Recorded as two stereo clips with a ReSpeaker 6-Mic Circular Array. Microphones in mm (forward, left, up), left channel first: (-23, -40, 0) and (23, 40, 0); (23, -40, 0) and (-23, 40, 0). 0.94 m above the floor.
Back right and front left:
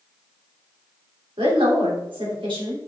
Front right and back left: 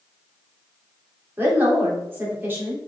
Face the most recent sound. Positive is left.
turn(degrees=55)